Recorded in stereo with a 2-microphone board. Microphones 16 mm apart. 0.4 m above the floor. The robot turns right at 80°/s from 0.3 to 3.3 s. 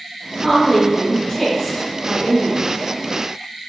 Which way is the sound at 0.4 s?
15° left (ahead or behind).